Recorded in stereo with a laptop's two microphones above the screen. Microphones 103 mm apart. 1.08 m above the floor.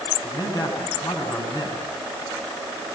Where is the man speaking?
40° left (ahead or behind), 9 m.